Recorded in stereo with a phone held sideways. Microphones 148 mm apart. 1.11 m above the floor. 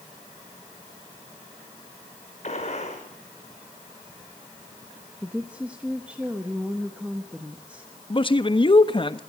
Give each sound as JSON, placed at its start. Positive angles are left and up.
{"t": 2.4, "sound": "a gunshot", "side_deg": 50, "distance_m": 5.5}
{"t": 5.2, "sound": "a woman speaking", "side_deg": -10, "distance_m": 1.3}
{"t": 8.1, "sound": "a man speaking", "side_deg": 35, "distance_m": 1.1}